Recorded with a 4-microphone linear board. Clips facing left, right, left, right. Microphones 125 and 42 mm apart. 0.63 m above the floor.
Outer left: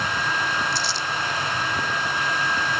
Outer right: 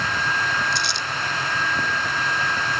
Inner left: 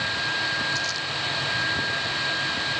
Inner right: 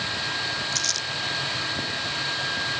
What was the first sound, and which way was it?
Crumpling, 65° right (ahead or behind).